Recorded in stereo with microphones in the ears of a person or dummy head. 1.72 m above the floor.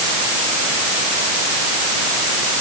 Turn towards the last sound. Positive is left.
No sound to turn to.